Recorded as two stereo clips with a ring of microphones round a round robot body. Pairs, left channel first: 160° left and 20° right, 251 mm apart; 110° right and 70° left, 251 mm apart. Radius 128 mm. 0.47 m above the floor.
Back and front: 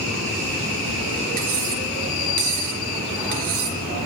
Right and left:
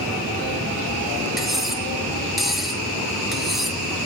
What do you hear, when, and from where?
1.4 s cutlery clinking: 20° right, 4.5 m